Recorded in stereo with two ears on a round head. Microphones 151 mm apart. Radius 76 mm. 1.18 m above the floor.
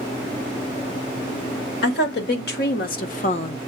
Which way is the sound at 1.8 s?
70° left (ahead or behind).